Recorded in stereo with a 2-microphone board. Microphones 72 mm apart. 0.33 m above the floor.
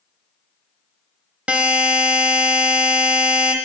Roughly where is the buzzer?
Centre.